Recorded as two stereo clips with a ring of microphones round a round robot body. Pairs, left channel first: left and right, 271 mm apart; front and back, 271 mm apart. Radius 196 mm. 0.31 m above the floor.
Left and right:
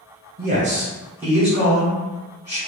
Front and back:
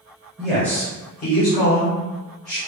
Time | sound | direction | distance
0.4 | a man speaking | 95° right | 1.2 m